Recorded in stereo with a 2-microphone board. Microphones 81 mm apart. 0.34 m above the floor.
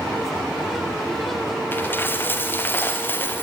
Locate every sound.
1.7 s a dropped coin: 25° left (ahead or behind), 3 m